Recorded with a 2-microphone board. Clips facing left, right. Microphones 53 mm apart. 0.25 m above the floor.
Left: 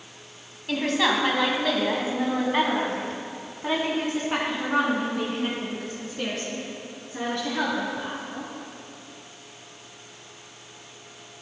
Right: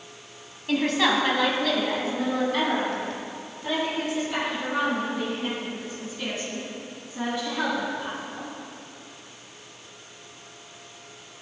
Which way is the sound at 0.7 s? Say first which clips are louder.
Right 1 dB; 5° right (ahead or behind).